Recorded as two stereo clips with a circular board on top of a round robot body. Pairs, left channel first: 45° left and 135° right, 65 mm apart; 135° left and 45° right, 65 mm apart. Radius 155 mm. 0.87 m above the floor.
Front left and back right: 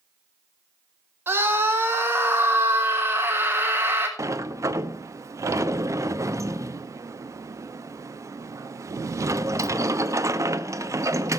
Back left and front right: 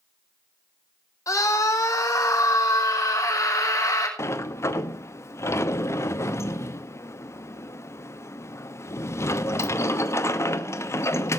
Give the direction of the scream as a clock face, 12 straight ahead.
6 o'clock.